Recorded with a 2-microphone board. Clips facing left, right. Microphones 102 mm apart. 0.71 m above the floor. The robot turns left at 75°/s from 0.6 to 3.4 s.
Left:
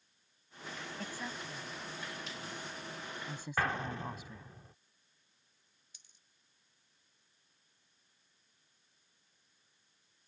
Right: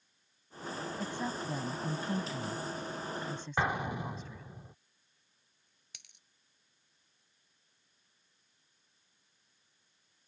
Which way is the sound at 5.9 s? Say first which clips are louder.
Right 7 dB; 75° right (ahead or behind).